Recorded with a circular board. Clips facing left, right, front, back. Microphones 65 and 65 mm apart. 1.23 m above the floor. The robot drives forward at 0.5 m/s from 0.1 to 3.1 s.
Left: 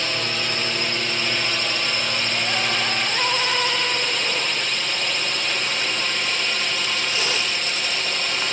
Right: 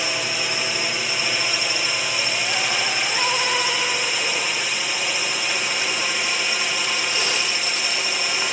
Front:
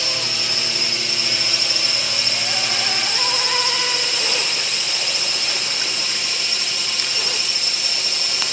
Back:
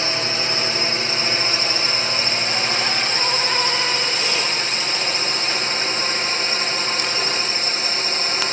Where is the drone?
165° right.